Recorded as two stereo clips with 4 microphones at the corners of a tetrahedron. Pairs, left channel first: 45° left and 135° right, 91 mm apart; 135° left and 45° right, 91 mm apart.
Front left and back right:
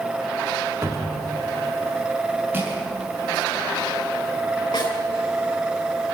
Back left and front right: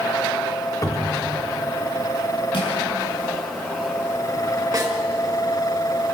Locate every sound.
0.8 s a cupboard door: straight behind, 1.8 m
2.5 s crushing: 160° left, 7.5 m
4.7 s a snare drum: 10° left, 4.5 m